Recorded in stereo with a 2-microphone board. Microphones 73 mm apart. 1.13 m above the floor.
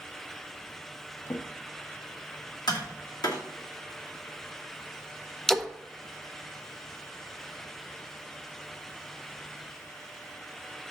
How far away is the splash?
About 0.6 m.